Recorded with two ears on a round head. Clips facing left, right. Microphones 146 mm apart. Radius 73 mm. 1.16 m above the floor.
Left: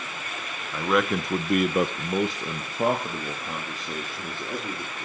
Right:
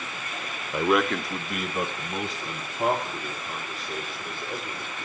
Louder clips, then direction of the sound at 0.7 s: Right 1 dB; 15° right (ahead or behind).